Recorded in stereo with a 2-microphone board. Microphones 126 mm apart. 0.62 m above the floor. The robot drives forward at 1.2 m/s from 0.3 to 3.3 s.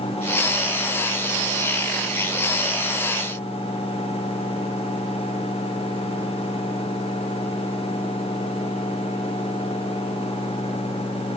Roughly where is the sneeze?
No sneeze in this recording.